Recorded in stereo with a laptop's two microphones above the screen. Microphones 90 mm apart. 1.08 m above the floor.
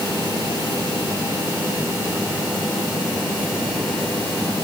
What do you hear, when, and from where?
Only background noise.